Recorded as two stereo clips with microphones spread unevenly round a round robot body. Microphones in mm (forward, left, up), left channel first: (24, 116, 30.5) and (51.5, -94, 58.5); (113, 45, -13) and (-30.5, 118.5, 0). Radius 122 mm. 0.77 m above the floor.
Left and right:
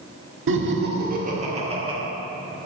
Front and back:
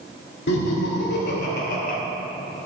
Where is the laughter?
55° right, 1.9 m; by 2.0 s 10° right, 2.5 m.